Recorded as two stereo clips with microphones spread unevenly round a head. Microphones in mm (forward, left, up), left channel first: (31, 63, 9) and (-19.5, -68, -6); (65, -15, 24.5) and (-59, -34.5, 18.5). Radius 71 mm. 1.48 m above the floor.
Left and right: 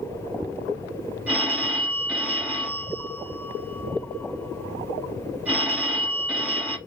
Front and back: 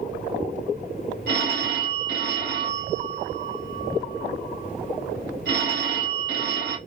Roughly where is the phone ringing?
Behind.